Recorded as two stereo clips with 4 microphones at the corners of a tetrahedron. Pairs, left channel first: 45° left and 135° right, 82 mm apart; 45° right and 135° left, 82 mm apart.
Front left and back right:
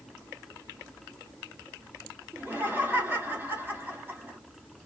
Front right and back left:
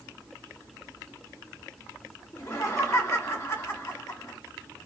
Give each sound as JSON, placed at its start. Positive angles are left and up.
{"t": 2.3, "sound": "laughter", "azimuth_deg": -80, "distance_m": 1.7}